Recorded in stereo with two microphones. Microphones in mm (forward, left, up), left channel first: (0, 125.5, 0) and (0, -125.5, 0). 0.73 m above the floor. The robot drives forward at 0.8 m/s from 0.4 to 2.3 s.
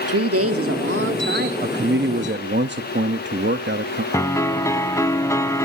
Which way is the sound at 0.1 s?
65° right (ahead or behind).